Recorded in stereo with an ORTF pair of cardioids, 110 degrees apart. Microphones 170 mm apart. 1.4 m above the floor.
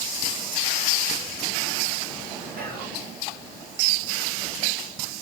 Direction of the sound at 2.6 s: 60° right.